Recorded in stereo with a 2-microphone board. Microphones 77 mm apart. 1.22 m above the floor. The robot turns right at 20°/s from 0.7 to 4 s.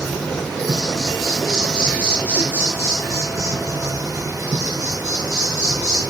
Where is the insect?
170° left, 5.5 m; by 6.1 s 125° right, 5.5 m.